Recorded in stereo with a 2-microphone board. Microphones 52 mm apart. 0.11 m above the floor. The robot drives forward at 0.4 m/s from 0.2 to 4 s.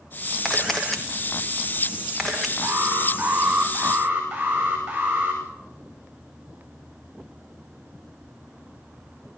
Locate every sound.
0.5 s a camera shutter: 5° left (ahead or behind), 3.5 m
2.6 s an alarm: 20° right (ahead or behind), 8.5 m